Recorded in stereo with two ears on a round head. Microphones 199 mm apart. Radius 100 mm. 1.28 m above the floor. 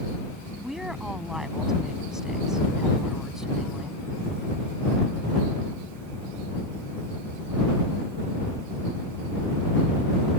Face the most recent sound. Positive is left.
turn(degrees=0)  # may be behind; listen again after turning